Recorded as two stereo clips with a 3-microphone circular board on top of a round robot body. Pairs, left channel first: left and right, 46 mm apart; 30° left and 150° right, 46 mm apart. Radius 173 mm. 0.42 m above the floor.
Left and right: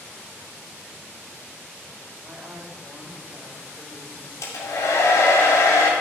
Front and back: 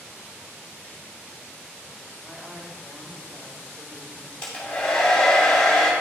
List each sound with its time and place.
2.2 s a woman speaking: 65° right, 1.2 m; by 4.3 s 135° right, 2.5 m
4.4 s a hair dryer: 100° left, 0.6 m